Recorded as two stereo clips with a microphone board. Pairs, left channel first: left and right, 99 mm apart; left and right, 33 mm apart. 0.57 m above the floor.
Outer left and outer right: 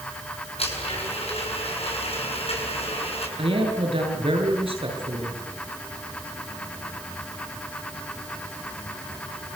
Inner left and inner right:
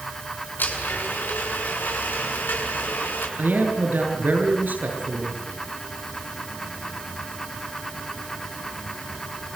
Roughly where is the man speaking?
Right.